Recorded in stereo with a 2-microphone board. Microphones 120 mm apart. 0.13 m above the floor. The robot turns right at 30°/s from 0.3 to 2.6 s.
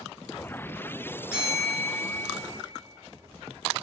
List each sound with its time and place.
1.3 s a bell: 10° right (ahead or behind), 1.2 m; by 2.2 s 10° left (ahead or behind), 1.2 m